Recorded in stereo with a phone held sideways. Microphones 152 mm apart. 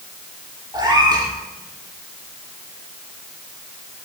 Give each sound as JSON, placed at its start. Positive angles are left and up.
{"t": 0.7, "sound": "a cat meowing", "side_deg": -30, "distance_m": 6.0}